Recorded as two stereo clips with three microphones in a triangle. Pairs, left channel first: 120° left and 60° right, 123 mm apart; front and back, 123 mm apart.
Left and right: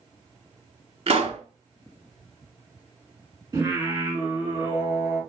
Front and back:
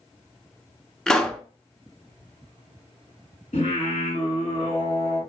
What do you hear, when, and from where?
1.1 s a pop: 85° right, 0.6 m
3.5 s singing: 5° left, 2.5 m